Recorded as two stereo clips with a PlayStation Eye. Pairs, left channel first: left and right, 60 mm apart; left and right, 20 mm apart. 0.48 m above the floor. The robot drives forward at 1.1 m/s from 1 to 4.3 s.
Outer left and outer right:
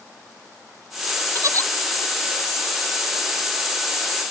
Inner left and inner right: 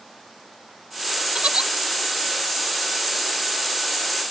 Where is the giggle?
60° right (ahead or behind); by 1.7 s 55° right (ahead or behind).